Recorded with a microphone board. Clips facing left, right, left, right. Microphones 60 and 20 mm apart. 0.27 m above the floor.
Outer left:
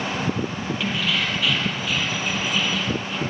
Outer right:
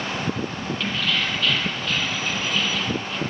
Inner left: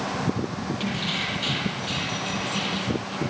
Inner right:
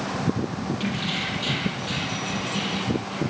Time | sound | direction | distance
0.8 | keys jangling | 10° left (ahead or behind) | 6 m